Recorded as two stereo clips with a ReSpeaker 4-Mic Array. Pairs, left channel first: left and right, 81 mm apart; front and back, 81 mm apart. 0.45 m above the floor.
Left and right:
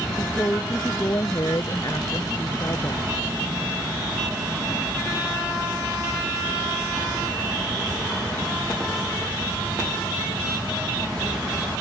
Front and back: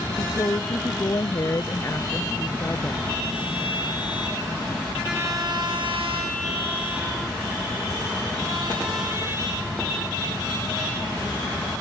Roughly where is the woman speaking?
Ahead left.